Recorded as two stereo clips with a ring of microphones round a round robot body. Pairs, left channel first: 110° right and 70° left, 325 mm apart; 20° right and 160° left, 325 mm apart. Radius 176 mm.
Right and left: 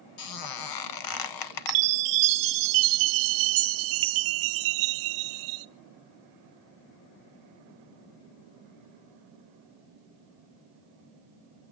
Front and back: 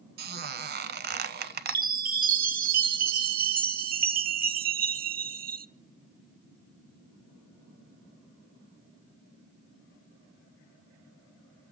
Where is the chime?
95° left, 0.8 m.